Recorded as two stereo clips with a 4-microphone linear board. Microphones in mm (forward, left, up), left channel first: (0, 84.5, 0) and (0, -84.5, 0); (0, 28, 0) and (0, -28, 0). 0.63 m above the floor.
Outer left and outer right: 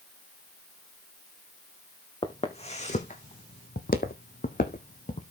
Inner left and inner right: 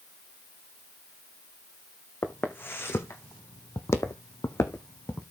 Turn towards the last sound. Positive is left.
turn(degrees=50)  # may be behind; listen again after turning